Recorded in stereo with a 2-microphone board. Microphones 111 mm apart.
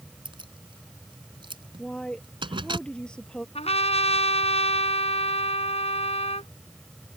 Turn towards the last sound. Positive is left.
turn(degrees=70)  # may be behind; listen again after turning